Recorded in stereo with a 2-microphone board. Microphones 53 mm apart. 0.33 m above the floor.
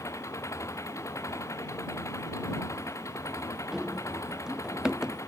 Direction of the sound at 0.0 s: 80° left.